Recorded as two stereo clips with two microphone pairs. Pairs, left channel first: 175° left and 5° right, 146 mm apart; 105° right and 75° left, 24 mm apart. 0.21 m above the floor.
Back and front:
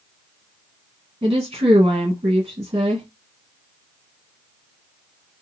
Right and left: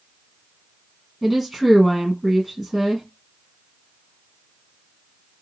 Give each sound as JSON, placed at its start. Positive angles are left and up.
{"t": 1.2, "sound": "a woman speaking", "azimuth_deg": -5, "distance_m": 1.1}